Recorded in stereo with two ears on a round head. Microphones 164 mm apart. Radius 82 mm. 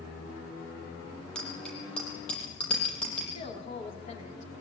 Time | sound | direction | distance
1.4 | a bicycle bell | 5° left (ahead or behind) | 7.5 m
3.3 | a woman speaking | 40° left (ahead or behind) | 4 m